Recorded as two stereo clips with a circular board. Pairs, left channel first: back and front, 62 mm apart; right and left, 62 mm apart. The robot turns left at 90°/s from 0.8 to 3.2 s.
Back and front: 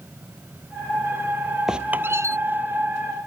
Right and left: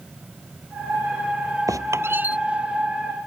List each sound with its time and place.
1.7 s a squeak: 80° left; by 2.4 s 20° left